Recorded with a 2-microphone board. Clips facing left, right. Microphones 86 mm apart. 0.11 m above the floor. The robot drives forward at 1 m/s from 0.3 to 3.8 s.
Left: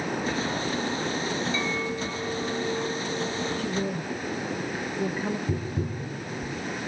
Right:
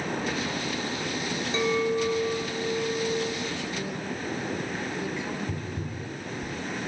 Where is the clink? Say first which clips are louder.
Right 4 dB; 35° right (ahead or behind), 1.5 m; by 3.5 s 15° right (ahead or behind), 3 m.